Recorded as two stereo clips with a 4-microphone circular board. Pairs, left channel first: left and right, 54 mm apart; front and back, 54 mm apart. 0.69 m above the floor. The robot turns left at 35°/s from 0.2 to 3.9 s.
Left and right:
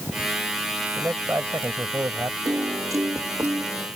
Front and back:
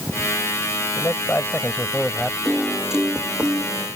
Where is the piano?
85° right; by 3.9 s 135° right.